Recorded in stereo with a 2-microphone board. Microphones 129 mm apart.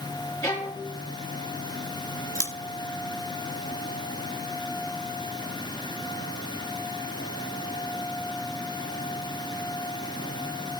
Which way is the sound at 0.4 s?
20° left (ahead or behind).